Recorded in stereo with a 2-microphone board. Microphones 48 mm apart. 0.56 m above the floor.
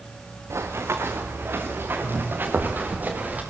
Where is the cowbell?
I don't hear a cowbell.